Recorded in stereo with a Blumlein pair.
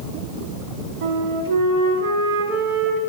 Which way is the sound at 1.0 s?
50° right.